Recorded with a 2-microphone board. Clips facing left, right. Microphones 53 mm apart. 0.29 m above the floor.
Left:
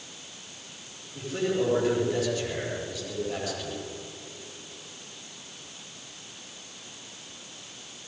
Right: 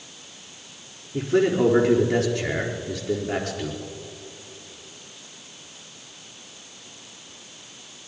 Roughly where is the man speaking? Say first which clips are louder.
Right 7 dB; right.